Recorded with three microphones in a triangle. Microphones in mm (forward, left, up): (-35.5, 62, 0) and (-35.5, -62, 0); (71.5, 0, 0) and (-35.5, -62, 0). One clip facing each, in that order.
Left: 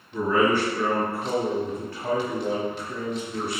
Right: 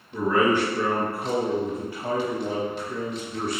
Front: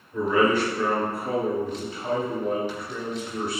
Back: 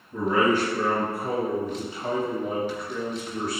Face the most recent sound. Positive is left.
turn(degrees=20)